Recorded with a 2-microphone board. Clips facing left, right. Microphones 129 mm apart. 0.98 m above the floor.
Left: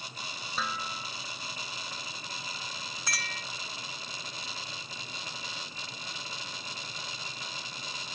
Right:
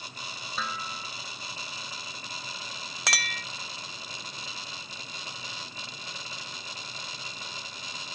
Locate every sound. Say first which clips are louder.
0.6 s dishes clattering: even; centre (ahead or behind)
3.1 s a clink: right 6 dB; 75° right (ahead or behind)